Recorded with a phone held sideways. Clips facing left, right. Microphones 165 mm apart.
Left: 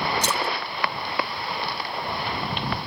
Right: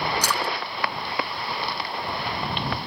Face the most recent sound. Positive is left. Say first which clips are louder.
# left 1 dB
turn(degrees=25)  # may be behind; listen again after turning